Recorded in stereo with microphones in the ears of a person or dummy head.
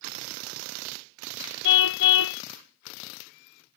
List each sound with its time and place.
1.6 s a car horn: 70° left (ahead or behind)